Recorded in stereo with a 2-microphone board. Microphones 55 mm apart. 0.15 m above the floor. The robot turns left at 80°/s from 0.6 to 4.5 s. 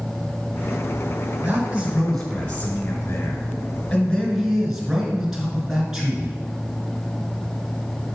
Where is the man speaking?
125° right, 2 m; by 6.4 s 10° right, 2 m.